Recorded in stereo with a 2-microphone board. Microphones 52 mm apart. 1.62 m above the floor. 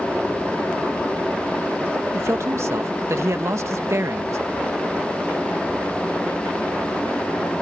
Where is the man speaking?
65° right (ahead or behind).